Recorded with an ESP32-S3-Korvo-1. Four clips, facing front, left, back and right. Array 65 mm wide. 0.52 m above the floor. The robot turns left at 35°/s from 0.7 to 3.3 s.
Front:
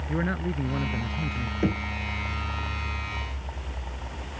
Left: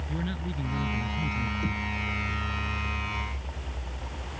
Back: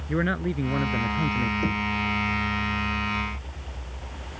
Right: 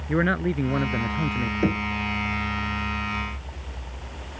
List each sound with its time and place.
0.1 s a man speaking: 105° right; by 1.5 s 135° right
1.6 s knocking: 70° right; by 1.9 s 75° right